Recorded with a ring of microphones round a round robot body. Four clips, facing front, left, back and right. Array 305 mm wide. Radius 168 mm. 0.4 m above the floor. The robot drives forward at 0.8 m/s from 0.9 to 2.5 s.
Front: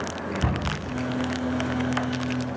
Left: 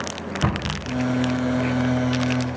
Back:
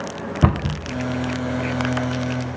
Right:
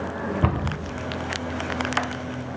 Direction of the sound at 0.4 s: 170° right.